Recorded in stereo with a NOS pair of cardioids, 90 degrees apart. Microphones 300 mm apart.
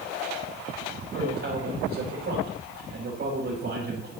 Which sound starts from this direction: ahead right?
A man speaking, at 1.1 s.